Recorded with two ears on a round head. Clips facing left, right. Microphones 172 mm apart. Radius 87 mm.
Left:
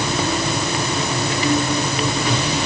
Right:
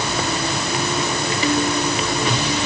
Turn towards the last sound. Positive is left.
No sound to turn to.